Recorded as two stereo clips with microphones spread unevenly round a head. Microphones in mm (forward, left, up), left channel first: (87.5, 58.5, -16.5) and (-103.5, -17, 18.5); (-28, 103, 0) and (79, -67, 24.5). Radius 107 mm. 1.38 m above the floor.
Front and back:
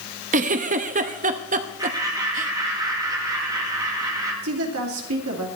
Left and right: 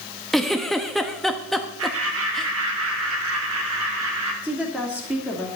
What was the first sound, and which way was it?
A giggle, 145° right.